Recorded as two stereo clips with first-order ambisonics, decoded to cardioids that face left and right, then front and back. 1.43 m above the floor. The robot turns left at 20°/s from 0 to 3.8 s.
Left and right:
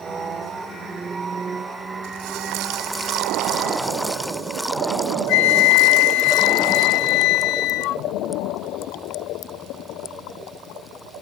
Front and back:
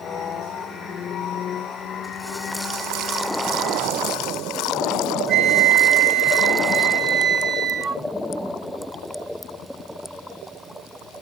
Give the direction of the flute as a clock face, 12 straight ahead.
8 o'clock.